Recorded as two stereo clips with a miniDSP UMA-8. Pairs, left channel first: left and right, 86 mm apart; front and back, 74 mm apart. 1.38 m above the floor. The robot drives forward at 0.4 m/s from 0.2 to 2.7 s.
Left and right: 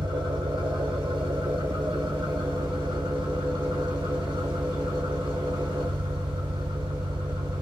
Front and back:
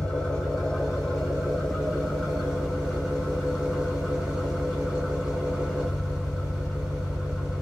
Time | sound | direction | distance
0.0 | an engine running | 80° right | 3 m